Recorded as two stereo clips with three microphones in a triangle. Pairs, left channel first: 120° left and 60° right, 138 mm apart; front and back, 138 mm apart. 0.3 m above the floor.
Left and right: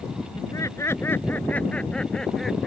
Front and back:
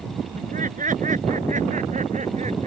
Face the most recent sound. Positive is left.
turn(degrees=-150)